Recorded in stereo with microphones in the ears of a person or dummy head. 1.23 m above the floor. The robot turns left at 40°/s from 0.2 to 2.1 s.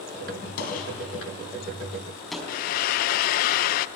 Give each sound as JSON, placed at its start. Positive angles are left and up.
{"t": 0.6, "sound": "a gunshot", "side_deg": 60, "distance_m": 4.0}
{"t": 2.5, "sound": "frying", "side_deg": 55, "distance_m": 0.5}